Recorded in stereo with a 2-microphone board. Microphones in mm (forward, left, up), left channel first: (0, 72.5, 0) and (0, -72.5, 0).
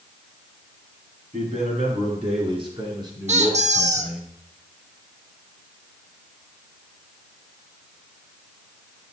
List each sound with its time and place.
1.3 s a man speaking: 55° right (ahead or behind), 3 m; by 4.3 s centre (ahead or behind), 1.8 m
3.3 s a squeak: 55° right (ahead or behind), 0.8 m